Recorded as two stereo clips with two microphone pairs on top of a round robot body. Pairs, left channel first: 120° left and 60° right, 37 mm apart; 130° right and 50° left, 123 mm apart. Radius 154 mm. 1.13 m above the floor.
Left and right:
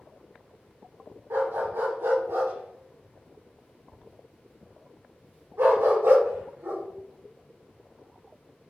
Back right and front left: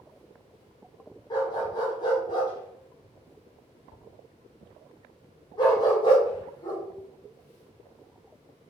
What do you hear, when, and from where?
1.3 s a dog barking: 75° right, 2 m